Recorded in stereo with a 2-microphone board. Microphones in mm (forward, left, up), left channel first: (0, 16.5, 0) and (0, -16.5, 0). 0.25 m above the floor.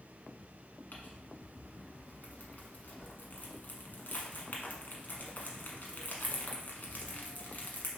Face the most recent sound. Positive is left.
turn(degrees=70)  # may be behind; listen again after turning